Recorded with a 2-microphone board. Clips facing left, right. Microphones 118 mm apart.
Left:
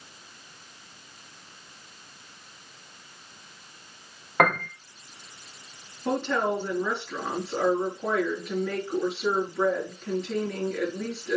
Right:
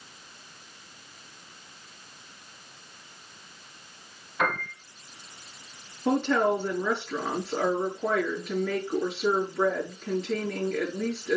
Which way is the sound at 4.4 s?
65° left (ahead or behind).